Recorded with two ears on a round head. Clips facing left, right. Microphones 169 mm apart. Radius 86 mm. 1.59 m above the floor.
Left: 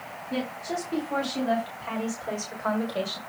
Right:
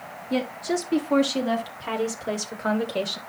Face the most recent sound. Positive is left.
turn(degrees=-25)  # may be behind; listen again after turning